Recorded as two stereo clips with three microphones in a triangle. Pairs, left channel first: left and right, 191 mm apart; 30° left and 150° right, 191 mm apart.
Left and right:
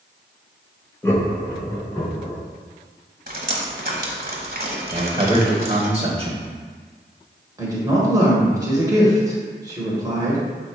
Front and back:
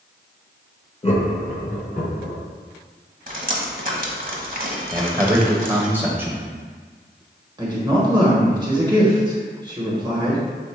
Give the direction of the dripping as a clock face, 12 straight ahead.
4 o'clock.